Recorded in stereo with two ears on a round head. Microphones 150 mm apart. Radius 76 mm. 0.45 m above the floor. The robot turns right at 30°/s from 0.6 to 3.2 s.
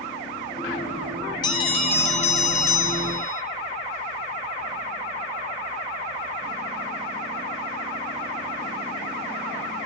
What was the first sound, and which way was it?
A bell, 35° left.